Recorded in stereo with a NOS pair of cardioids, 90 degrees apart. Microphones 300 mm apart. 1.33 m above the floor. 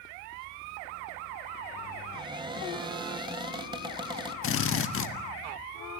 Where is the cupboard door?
15° right, 3 m.